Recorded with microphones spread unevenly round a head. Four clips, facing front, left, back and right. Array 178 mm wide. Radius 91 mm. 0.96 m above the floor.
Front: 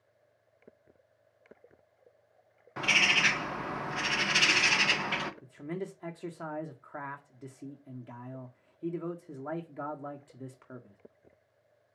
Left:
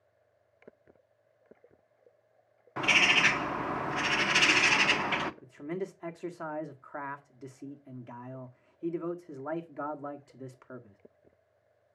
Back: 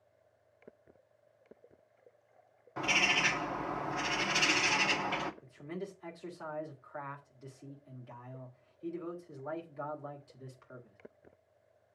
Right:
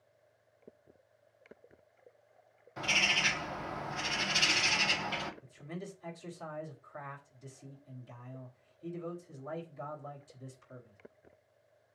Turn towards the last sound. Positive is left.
turn(degrees=45)